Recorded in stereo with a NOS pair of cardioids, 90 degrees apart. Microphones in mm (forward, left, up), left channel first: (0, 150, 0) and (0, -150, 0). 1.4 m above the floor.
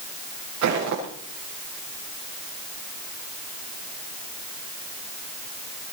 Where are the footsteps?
65° right, 7.5 m.